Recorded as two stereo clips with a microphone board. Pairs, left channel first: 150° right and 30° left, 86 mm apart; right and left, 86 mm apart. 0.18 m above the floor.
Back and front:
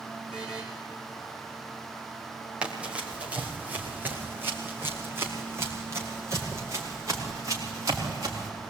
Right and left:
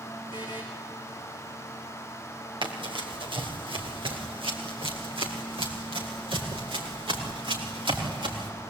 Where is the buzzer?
110° left, 6 m.